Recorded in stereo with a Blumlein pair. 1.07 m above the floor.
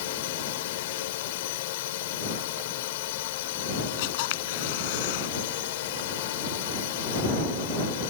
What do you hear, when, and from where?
0.0 s a drone: 50° left
4.0 s a camera shutter: 50° left